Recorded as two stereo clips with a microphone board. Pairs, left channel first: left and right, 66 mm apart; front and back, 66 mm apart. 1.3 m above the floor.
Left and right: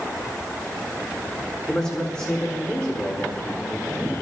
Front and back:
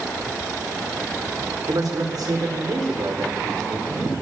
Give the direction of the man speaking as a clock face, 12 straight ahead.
6 o'clock.